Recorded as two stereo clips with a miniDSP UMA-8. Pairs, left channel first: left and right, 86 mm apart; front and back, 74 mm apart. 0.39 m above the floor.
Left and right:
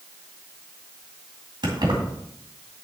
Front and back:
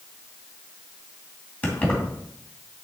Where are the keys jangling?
65° right, 2 m.